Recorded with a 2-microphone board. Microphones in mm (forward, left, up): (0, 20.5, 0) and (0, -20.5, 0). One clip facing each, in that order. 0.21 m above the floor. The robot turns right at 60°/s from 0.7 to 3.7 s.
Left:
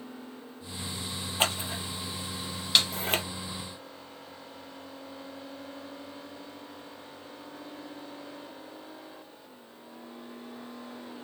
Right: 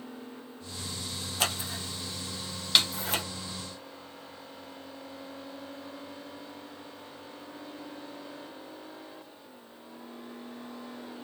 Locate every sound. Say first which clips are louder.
1.4 s scissors: left 3 dB; 30° left (ahead or behind), 0.8 m; by 3.2 s 40° left (ahead or behind), 0.8 m
2.8 s a snare drum: even; centre (ahead or behind), 0.8 m